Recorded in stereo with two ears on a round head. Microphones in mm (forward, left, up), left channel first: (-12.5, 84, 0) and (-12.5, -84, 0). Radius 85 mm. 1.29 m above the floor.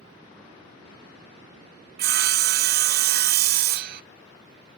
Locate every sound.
2.0 s sawing: 55° right (ahead or behind), 0.5 m